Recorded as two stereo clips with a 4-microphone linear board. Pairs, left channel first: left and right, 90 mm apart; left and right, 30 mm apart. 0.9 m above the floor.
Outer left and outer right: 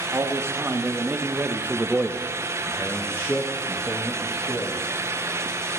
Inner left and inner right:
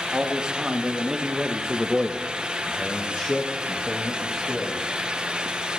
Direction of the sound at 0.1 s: 30° right (ahead or behind).